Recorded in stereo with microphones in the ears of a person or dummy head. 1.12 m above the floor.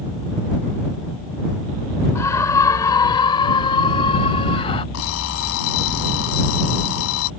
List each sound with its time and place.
2.1 s a scream: 15° left (ahead or behind); by 4.8 s 25° left (ahead or behind)
4.9 s an alarm clock: 80° left